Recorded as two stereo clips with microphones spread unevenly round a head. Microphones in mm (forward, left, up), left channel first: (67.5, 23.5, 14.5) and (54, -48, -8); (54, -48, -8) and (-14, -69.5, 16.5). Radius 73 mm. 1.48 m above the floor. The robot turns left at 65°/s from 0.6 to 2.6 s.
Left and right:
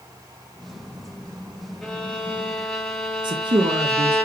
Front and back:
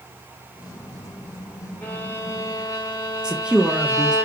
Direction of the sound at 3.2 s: 85° right.